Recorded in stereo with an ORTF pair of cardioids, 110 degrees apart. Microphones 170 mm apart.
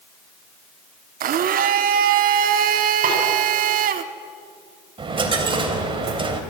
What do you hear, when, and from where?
1.2 s a blender: 60° right, 1.2 m
3.0 s a snare drum: 50° right, 8.5 m
5.0 s a dropped coin: 30° right, 3 m